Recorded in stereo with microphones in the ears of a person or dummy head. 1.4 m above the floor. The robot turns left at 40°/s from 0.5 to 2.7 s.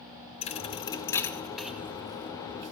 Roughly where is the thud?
Left.